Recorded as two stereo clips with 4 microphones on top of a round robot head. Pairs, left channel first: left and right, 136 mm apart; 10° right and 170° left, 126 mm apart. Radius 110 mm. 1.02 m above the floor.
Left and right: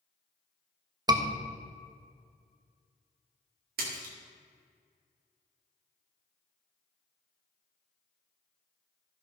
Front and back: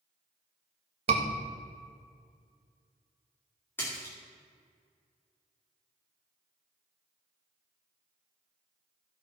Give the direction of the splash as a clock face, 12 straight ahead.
3 o'clock.